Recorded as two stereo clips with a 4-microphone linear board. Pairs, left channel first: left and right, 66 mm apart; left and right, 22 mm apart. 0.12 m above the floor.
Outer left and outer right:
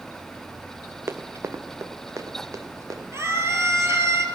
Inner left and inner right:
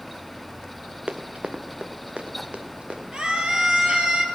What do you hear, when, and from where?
1.1 s running footsteps: 45° right (ahead or behind), 0.6 m; by 3.0 s 55° right (ahead or behind), 1.8 m
3.1 s a scream: 40° right (ahead or behind), 2.5 m